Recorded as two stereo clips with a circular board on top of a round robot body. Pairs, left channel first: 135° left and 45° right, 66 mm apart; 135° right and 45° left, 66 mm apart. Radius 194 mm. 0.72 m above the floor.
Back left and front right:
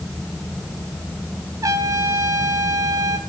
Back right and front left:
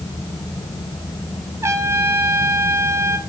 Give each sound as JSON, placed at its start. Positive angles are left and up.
{"t": 1.6, "sound": "a trumpet", "azimuth_deg": -5, "distance_m": 1.7}